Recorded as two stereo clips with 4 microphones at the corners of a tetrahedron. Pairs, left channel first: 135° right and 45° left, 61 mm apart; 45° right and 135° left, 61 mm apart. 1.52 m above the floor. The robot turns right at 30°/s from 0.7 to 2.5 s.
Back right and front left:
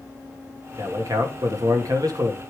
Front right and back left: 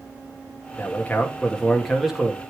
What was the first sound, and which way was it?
A man speaking, 10° left.